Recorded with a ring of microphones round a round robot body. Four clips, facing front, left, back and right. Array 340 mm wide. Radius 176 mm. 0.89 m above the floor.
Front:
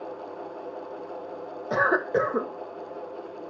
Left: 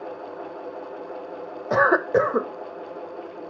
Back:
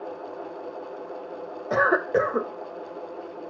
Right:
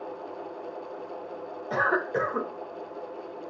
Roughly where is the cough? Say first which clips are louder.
Left 8 dB, back 2 dB; left.